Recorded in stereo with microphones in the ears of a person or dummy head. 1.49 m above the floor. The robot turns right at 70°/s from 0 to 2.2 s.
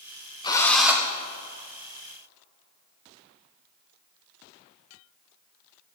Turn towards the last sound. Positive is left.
turn(degrees=-80)